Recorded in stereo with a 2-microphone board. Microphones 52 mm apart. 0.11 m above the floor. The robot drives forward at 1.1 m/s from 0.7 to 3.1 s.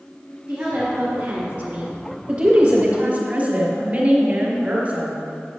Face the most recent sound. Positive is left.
turn(degrees=-30)  # may be behind; listen again after turning